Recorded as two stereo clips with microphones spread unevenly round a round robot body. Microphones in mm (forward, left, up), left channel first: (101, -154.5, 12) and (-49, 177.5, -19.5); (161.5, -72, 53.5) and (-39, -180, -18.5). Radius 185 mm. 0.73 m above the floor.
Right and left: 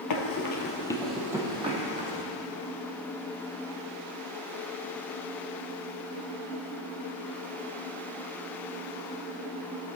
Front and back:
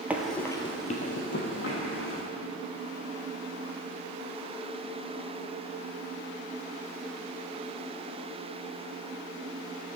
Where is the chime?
No chime in this recording.